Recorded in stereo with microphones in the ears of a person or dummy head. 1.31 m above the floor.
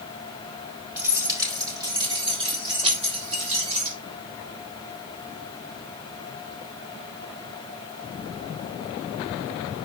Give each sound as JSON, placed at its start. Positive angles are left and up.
{"t": 1.0, "sound": "keys jangling", "side_deg": -15, "distance_m": 4.5}